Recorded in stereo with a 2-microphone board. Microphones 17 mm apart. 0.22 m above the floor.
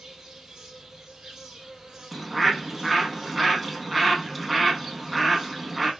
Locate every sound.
0.0 s an insect: 40° right (ahead or behind), 1.3 m
2.1 s a bird: 5° right (ahead or behind), 0.6 m